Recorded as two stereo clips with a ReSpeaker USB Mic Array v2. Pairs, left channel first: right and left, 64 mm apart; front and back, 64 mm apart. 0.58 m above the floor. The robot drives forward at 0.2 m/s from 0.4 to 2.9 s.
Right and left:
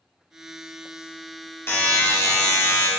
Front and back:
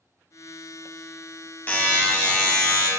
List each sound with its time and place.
1.7 s a buzzer: 55° right, 0.9 m; by 2.9 s 75° right, 0.8 m